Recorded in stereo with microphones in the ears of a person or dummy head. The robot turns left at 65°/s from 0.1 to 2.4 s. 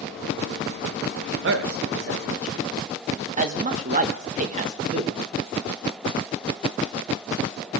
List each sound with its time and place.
1.4 s a man speaking: 75° right (ahead or behind), 1.3 m; by 5.2 s 35° right (ahead or behind), 1.3 m